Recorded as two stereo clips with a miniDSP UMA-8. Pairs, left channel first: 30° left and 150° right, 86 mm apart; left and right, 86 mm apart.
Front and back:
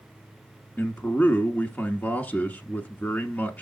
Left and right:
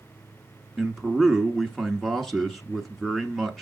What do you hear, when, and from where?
0.8 s a man speaking: 5° left, 1.1 m